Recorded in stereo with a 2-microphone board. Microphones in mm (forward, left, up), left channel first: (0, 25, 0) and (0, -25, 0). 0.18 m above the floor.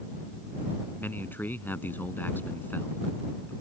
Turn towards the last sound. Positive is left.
turn(degrees=45)  # may be behind; listen again after turning